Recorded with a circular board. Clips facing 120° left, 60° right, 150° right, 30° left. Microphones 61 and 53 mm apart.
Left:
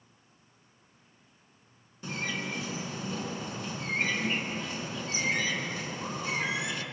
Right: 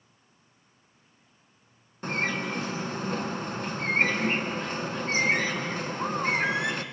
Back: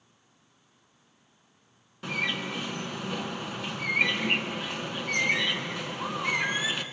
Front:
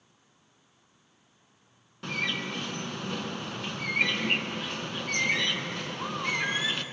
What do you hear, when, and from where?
2.0 s a bird: 65° right, 1.7 m